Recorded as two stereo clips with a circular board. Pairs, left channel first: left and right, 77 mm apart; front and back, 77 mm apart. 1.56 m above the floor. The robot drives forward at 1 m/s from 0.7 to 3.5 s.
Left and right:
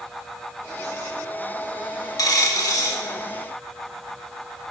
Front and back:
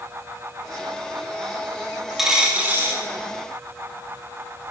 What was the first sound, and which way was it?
A dropped coin, 95° left.